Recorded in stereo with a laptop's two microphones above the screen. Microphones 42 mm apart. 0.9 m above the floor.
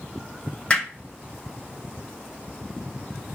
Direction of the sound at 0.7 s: 30° left (ahead or behind).